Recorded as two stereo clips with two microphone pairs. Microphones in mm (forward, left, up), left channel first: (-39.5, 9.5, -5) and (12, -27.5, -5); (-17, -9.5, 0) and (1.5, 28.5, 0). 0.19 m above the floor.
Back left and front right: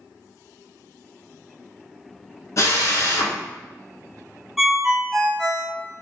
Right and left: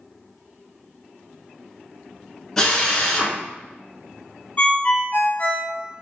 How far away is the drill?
About 0.8 m.